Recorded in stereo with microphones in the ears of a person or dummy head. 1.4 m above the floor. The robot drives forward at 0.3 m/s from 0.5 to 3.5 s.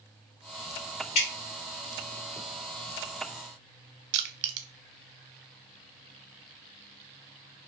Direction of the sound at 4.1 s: 60° right (ahead or behind).